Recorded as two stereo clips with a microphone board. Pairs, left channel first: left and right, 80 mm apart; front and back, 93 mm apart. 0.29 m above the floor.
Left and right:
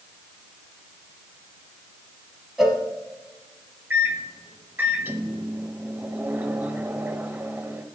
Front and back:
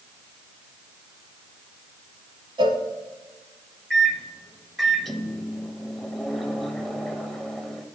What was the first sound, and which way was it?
A cowbell, 175° right.